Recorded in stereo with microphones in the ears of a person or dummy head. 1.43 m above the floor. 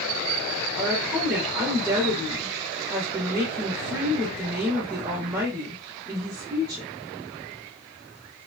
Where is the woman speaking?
15° right (ahead or behind), 0.9 m.